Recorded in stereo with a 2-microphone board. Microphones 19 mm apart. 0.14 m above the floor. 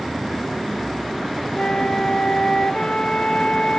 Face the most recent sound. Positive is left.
turn(degrees=55)  # may be behind; listen again after turning